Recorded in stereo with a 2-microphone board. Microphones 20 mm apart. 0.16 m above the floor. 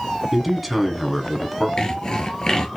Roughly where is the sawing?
Left.